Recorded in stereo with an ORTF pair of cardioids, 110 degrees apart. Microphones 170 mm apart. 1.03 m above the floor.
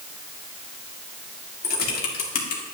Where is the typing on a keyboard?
65° left, 1.8 m.